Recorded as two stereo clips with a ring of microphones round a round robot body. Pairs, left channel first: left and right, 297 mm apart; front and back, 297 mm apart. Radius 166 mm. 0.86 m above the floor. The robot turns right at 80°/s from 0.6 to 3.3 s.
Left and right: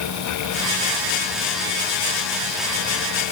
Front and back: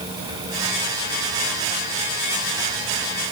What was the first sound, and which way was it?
Only background noise.